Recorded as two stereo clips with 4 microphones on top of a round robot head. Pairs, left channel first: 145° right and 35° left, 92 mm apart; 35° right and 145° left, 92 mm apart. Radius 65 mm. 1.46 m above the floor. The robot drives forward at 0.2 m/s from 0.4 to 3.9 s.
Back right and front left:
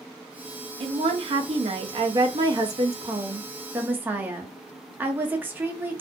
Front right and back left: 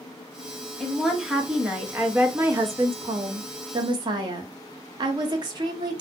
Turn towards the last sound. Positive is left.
turn(degrees=105)